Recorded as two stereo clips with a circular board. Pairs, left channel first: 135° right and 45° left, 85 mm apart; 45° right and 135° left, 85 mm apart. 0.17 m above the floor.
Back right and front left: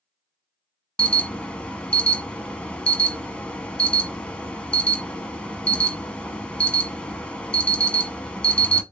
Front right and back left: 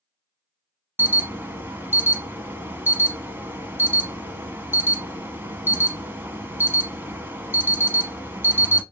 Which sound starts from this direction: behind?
An alarm, at 1.0 s.